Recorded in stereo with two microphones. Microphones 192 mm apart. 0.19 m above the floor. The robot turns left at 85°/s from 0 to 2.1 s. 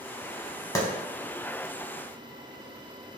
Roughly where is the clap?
Centre.